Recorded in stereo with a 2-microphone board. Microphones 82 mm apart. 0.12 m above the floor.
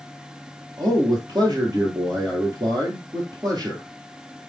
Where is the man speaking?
55° right (ahead or behind), 2.5 m.